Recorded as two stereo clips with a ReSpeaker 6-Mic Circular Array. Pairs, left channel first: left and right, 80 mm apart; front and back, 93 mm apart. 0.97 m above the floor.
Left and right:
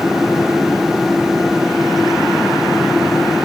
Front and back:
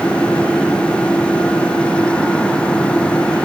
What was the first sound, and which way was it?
Only background noise.